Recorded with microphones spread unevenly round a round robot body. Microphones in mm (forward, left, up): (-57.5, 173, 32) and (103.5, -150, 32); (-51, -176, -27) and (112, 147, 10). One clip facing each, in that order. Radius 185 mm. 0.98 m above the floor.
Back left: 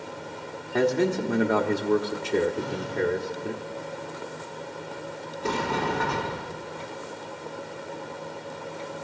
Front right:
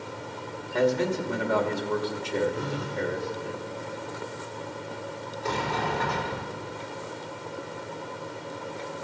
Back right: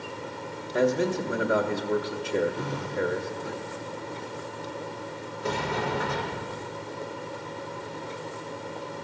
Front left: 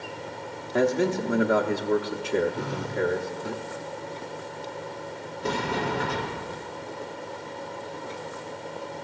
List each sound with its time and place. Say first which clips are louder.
0.7 s a man speaking: back left 2 dB, front left 1 dB; 95° left, 1.4 m
2.5 s a phone buzzing: back left 2 dB, front left 1 dB; 10° left, 2.5 m
5.4 s a sliding door: back left 3 dB, front left 2 dB; 65° left, 3 m